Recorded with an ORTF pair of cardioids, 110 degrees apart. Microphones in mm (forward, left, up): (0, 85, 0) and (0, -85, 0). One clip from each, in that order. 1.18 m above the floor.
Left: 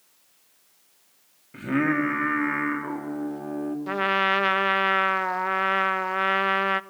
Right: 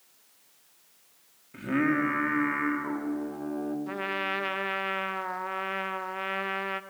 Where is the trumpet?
35° left, 0.5 m.